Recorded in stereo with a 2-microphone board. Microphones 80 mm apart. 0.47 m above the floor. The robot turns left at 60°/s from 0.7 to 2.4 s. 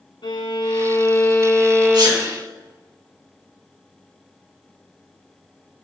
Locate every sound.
0.2 s a violin: 75° left, 1.8 m; by 2.4 s 25° right, 1.8 m
1.9 s a sneeze: 65° right (ahead or behind), 4.5 m; by 2.2 s 50° right (ahead or behind), 4.5 m